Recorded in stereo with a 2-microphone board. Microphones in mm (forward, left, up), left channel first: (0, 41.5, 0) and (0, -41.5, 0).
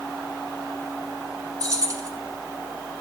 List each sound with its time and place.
1.6 s keys jangling: 45° right (ahead or behind), 1.1 m